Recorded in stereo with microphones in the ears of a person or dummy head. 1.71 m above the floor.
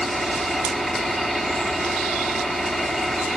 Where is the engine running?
5° left (ahead or behind).